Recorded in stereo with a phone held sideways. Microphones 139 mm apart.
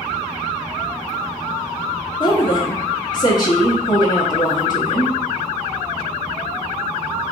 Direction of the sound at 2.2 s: 30° left (ahead or behind).